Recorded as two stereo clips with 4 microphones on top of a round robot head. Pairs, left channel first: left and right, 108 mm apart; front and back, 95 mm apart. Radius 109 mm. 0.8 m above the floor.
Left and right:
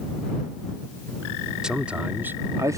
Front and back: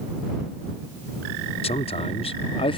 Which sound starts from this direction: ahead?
A man speaking, at 1.6 s.